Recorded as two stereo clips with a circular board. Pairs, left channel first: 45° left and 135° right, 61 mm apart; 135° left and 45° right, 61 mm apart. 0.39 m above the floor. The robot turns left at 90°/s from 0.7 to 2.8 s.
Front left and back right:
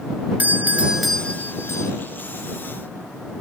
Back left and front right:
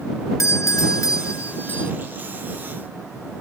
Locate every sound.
0.4 s a doorbell: 170° left; by 1.9 s 60° left